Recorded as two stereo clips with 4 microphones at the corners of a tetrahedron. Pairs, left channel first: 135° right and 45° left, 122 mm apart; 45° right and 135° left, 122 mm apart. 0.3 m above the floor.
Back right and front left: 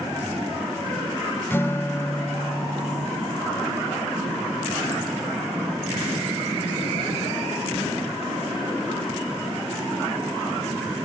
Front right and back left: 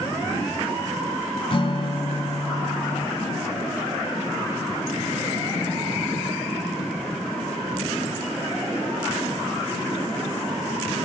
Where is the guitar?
70° right, 0.8 m.